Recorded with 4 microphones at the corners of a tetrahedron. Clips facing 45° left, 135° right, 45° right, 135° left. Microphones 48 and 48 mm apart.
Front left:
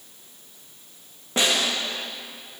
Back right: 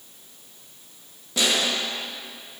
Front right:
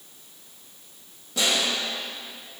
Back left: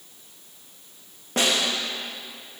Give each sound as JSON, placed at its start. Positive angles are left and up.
{"t": 1.4, "sound": "a snare drum", "azimuth_deg": 100, "distance_m": 2.0}